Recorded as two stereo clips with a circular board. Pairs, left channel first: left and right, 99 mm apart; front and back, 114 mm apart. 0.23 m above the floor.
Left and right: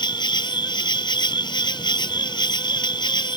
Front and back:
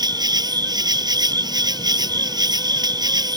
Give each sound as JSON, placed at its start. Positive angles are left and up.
{"t": 0.0, "sound": "an insect", "azimuth_deg": 130}